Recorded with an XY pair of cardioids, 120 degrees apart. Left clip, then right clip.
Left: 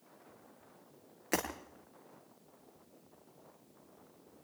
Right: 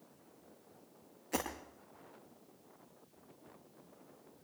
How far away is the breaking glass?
About 8 m.